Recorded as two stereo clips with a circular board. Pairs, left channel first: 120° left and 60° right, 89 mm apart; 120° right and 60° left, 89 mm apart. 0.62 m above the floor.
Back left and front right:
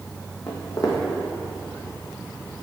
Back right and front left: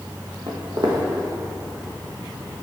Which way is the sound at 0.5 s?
80° left.